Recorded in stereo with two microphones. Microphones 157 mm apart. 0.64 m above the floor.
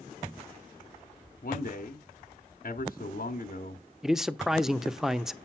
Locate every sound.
1.4 s a man speaking: 60° left (ahead or behind), 1.0 m
4.0 s a man speaking: 5° right (ahead or behind), 0.6 m